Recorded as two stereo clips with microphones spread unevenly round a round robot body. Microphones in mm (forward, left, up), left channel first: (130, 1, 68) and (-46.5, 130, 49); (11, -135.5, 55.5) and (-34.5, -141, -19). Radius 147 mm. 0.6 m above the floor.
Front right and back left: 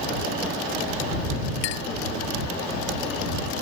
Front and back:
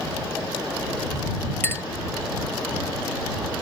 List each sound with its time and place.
1.6 s a clink: 45° right